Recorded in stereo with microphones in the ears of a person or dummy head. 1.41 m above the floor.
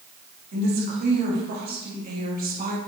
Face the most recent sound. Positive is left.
turn(degrees=-45)  # may be behind; listen again after turning